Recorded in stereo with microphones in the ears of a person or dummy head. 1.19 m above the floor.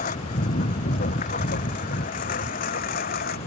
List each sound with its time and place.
0.0 s a lawn mower: 40° left (ahead or behind); by 3.5 s 45° left (ahead or behind)